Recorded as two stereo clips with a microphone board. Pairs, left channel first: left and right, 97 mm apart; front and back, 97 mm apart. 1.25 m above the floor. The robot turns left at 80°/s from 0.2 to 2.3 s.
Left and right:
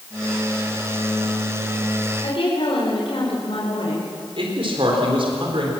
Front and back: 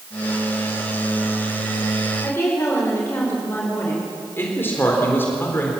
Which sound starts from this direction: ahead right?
A man speaking, at 4.4 s.